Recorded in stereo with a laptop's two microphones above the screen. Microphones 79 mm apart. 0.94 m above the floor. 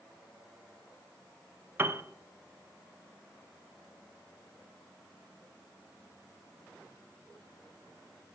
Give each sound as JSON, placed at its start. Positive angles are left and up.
{"t": 1.8, "sound": "a piano", "side_deg": -30, "distance_m": 0.7}